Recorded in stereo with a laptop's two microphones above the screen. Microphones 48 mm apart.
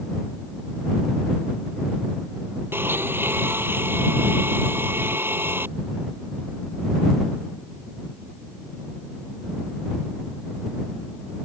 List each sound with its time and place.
2.7 s a blender: 50° right (ahead or behind)